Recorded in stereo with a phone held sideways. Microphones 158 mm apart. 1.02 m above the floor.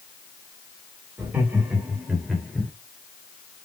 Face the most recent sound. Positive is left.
turn(degrees=10)  # may be behind; listen again after turning